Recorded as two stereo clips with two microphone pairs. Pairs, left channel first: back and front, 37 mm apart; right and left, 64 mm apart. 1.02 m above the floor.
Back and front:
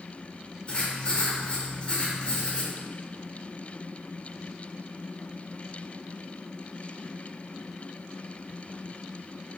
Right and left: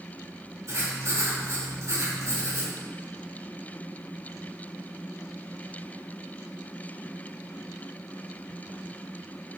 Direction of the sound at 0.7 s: 125° left.